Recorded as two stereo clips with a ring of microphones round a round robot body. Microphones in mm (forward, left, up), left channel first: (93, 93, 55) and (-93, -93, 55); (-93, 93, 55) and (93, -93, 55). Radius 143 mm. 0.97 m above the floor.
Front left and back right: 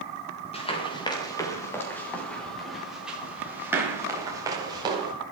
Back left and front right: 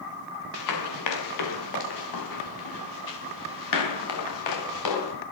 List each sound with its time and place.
0.5 s running footsteps: 115° left, 6.5 m; by 5.1 s 150° left, 9 m